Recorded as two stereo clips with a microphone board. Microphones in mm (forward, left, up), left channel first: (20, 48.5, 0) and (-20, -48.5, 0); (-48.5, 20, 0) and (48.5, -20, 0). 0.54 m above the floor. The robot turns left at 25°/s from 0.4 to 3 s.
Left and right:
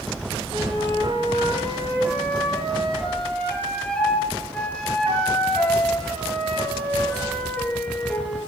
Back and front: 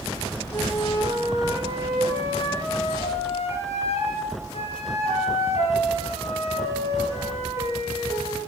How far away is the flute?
About 5 m.